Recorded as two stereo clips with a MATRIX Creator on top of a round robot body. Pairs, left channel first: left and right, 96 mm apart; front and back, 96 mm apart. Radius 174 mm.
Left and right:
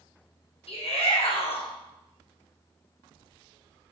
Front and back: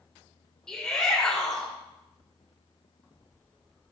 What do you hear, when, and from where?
0.7 s a shout: 80° left, 2.5 m